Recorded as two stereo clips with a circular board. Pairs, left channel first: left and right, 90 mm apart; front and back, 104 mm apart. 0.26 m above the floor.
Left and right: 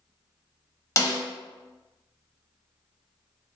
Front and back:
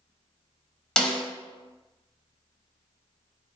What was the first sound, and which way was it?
A snare drum, 75° left.